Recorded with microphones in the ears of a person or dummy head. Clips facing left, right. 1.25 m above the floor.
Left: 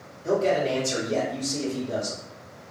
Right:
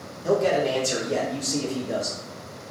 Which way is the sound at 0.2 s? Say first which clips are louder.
Right 1 dB; 65° right (ahead or behind).